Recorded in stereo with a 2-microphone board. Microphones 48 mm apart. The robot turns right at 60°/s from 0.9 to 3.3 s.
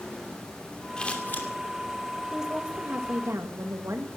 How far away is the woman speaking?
About 2.5 m.